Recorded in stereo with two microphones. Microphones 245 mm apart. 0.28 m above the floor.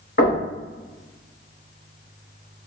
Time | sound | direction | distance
0.2 | knocking | 45° left (ahead or behind) | 1.6 m